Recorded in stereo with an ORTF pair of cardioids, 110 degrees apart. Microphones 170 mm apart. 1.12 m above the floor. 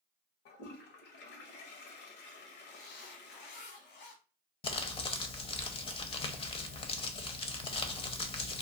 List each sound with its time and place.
0.5 s a toilet flushing: 70° left, 0.8 m
2.7 s a zipper: 65° left, 1.0 m
4.6 s crumpling: 35° left, 0.6 m